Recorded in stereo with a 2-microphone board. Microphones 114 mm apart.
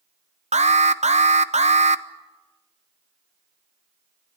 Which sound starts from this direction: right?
An alarm, at 0.5 s.